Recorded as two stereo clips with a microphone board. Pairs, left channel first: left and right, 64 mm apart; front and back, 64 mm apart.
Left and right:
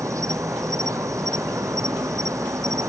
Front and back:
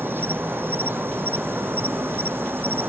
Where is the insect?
125° right.